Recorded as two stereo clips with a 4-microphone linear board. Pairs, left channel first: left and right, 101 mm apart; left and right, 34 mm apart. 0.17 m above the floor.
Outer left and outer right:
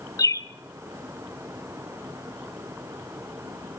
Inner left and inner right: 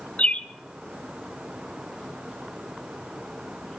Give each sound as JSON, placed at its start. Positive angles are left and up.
{"t": 0.2, "sound": "a bird", "side_deg": 35, "distance_m": 0.8}